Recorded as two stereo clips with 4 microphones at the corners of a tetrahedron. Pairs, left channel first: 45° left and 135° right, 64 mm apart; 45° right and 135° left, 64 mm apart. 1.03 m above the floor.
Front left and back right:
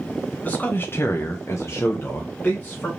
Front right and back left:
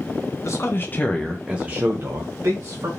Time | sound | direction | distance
0.4 | a man speaking | 20° right | 0.9 m